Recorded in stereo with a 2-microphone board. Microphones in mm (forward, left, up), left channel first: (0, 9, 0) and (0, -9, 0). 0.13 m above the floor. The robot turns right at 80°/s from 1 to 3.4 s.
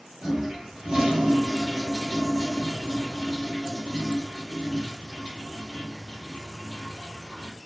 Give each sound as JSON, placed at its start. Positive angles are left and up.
{"t": 0.2, "sound": "a toilet flushing", "azimuth_deg": -85, "distance_m": 2.5}